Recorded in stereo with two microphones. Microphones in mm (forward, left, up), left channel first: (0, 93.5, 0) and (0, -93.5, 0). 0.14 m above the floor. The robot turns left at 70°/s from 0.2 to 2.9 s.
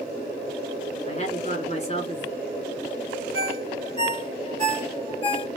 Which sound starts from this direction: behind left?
A woman speaking, at 1.1 s.